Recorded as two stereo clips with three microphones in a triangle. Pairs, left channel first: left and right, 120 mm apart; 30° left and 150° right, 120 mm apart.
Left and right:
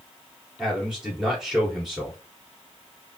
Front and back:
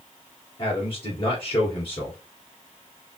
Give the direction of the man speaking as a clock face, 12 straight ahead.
12 o'clock.